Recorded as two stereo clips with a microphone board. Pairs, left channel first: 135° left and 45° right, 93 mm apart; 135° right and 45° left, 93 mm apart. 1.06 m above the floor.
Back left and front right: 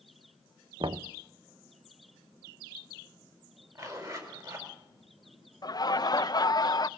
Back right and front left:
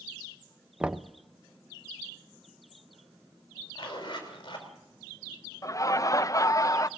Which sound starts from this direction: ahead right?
Knocking, at 0.8 s.